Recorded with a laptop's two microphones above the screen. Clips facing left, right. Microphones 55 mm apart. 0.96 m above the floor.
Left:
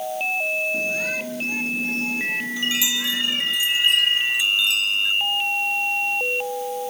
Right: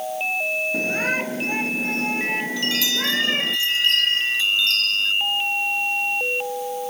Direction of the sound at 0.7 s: 45° right (ahead or behind).